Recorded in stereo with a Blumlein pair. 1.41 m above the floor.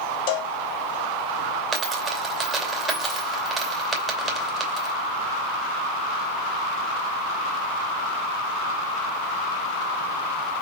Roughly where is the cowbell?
Ahead left.